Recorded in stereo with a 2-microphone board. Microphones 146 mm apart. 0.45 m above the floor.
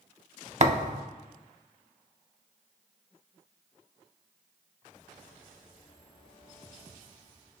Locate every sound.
0.6 s a thud: 55° right (ahead or behind), 0.5 m